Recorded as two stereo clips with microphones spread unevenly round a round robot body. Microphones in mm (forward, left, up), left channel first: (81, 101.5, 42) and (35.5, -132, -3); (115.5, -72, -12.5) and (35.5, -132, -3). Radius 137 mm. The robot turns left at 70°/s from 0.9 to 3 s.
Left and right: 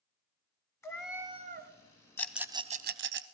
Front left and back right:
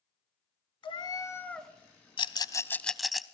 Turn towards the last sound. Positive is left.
turn(degrees=-55)